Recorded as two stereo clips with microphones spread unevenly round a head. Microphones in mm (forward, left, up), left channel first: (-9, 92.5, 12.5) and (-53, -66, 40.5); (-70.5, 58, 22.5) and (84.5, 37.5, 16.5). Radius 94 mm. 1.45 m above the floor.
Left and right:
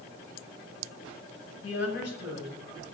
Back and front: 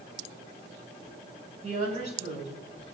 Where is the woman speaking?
35° left, 10 m.